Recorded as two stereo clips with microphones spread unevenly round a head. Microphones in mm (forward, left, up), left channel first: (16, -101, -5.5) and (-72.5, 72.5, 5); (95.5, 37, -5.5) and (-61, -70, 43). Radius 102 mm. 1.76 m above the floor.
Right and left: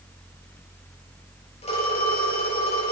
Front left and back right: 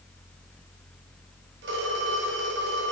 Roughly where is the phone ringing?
Behind right.